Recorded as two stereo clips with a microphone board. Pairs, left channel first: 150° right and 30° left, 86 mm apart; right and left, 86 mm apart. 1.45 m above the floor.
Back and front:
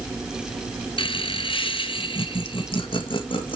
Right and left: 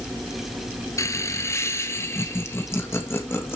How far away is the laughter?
About 1.1 m.